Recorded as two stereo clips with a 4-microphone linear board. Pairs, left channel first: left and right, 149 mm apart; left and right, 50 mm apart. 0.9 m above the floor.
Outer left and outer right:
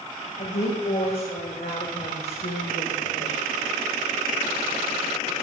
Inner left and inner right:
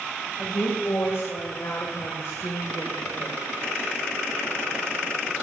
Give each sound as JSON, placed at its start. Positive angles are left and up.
{"t": 0.4, "sound": "a woman speaking", "side_deg": 60, "distance_m": 4.0}